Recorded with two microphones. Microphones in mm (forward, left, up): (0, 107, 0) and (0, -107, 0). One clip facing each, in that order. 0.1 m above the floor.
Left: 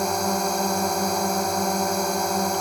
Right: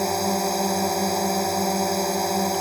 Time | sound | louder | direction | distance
0.0 | a drone | right 1 dB | 5° right (ahead or behind) | ?